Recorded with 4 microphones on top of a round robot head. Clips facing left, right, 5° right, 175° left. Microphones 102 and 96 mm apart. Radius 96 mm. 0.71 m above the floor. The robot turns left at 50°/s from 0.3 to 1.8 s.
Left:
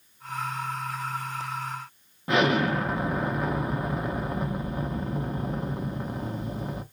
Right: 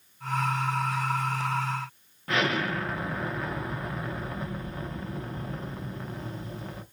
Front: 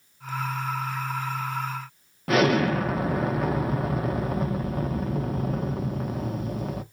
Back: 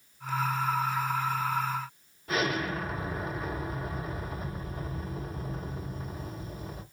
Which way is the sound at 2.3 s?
20° left.